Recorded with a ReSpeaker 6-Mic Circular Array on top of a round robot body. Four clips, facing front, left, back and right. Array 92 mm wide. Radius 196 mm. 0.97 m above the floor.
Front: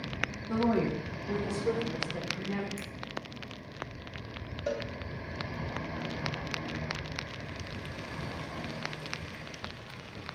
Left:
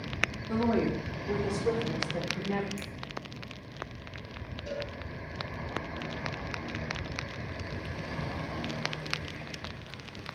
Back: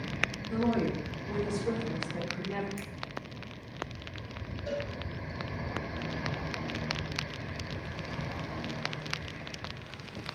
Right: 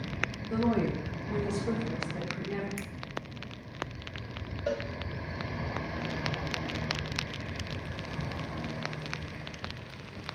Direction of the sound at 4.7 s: 50° right.